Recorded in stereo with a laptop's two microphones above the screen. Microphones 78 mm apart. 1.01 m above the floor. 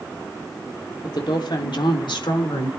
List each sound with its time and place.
1.0 s a woman speaking: 65° left (ahead or behind), 3 m; by 2.7 s 70° left (ahead or behind), 3.5 m